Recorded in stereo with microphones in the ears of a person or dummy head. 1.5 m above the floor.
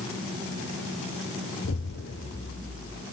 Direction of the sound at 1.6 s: 70° left (ahead or behind).